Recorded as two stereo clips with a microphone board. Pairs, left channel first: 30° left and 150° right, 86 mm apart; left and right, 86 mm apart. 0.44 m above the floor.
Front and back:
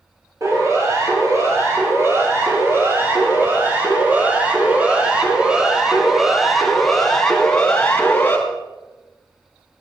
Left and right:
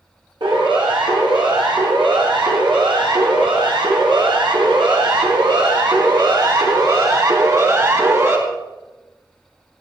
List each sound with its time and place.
0.4 s a siren: 95° right, 9 m; by 8.4 s 35° right, 4 m